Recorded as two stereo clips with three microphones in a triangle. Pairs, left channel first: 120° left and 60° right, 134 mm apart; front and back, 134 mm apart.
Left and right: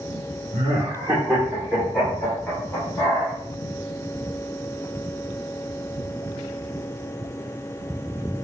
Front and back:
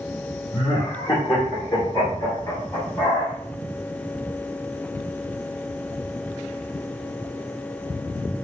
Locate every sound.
0.5 s laughter: 35° right, 1.3 m; by 3.3 s 70° left, 2.0 m